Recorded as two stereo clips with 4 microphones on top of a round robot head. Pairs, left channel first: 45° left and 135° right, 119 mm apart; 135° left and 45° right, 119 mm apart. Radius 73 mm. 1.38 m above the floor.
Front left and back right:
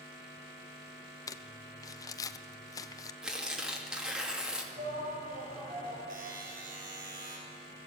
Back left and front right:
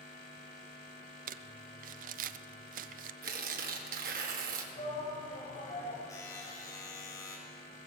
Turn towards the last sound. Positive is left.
turn(degrees=-155)